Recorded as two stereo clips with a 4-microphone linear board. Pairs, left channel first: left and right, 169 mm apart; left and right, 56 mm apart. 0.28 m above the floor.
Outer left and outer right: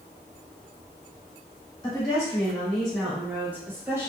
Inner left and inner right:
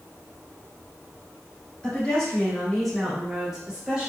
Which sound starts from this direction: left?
A woman speaking, at 1.8 s.